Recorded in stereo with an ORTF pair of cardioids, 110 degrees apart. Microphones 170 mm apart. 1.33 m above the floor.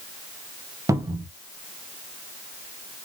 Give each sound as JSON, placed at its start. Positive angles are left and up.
{"t": 0.9, "sound": "a cupboard door", "azimuth_deg": -20, "distance_m": 0.5}